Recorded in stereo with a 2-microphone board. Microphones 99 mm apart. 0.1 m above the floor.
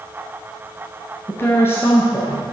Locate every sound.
1.3 s a woman speaking: 25° left (ahead or behind), 1.2 m